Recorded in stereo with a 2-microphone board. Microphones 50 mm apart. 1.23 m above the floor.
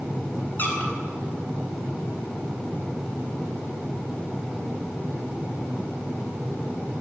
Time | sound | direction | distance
0.6 | a squeak | 35° left (ahead or behind) | 2.5 m